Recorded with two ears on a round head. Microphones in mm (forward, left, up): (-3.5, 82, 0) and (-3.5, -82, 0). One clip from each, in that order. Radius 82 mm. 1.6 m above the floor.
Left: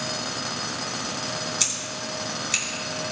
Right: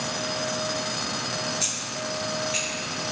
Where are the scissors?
65° left (ahead or behind), 4.5 m.